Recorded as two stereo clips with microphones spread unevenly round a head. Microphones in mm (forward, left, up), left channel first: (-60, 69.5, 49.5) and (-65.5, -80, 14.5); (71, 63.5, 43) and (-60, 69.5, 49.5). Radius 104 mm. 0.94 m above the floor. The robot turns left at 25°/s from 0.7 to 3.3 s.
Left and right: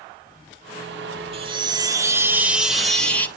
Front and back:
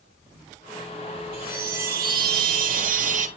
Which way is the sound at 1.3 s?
150° right.